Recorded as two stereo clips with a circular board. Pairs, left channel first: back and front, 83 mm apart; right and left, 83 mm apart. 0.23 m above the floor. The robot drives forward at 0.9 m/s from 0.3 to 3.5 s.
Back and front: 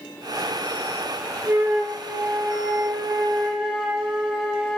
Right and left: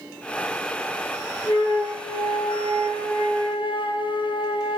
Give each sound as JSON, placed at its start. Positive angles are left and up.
{"t": 1.5, "sound": "a flute", "azimuth_deg": -60, "distance_m": 5.5}